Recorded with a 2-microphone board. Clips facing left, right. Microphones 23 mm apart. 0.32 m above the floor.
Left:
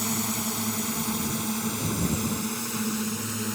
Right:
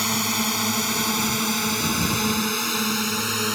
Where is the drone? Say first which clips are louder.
Right 6 dB; 55° right (ahead or behind); by 3.6 s 70° right (ahead or behind).